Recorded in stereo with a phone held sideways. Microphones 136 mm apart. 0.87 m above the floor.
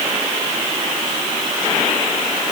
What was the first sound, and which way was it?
Only background noise.